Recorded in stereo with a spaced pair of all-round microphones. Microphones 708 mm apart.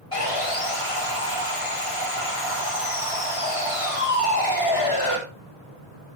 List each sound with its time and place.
0.1 s sawing: 45° left (ahead or behind), 2 m